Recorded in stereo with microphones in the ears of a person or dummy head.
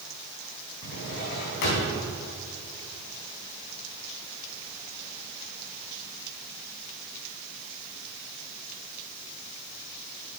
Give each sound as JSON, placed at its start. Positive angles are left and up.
{"t": 0.8, "sound": "a drawer", "side_deg": 55, "distance_m": 3.5}